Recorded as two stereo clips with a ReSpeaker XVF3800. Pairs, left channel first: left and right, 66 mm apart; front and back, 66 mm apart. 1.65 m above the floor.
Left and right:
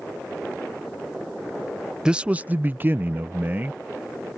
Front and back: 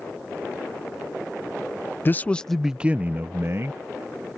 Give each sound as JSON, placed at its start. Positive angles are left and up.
{"t": 2.0, "sound": "a man speaking", "azimuth_deg": -20}